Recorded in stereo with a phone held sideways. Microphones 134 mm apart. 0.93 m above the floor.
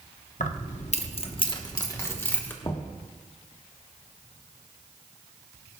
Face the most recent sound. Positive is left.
turn(degrees=35)  # may be behind; listen again after turning